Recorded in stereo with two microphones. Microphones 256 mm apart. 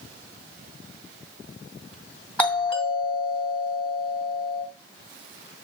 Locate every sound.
2.4 s a doorbell: 5° left (ahead or behind), 2.0 m